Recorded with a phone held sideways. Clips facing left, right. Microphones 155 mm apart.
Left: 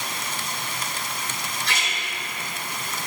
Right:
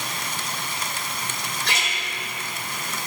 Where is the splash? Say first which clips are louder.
Right 2 dB; 75° right (ahead or behind), 3 m.